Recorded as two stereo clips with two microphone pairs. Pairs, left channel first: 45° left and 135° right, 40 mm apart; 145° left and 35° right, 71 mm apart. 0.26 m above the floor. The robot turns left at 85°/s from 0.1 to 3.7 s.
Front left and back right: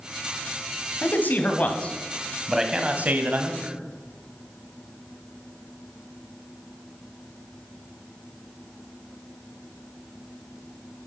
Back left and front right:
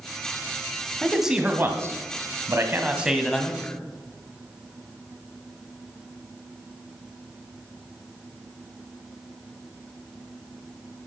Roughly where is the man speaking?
Ahead left.